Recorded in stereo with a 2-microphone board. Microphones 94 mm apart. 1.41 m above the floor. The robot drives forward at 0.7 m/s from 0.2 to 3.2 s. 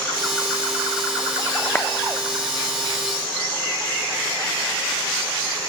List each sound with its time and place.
1.8 s a clap: 20° left (ahead or behind), 0.9 m; by 1.9 s 15° left (ahead or behind), 1.0 m